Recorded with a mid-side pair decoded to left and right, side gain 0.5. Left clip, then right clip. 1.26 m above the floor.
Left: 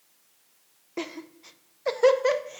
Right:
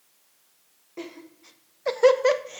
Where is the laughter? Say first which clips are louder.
Left 4 dB; 50° left, 0.6 m; by 2.6 s 30° right, 0.8 m.